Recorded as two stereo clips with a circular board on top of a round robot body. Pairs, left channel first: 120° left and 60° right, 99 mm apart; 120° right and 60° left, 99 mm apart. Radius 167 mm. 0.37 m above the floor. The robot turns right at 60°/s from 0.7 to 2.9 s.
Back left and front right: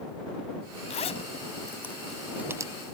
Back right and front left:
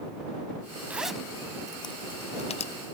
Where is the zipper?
135° left; by 2.7 s 115° right.